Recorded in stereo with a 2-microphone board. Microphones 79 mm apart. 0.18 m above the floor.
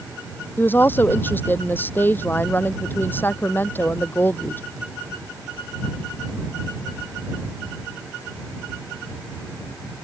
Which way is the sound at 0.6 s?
25° left (ahead or behind).